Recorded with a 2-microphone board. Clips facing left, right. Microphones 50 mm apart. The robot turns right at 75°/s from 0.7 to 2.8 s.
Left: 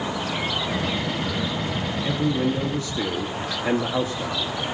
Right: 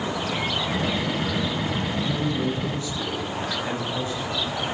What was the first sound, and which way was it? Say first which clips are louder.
A man speaking: left 6 dB; 30° left.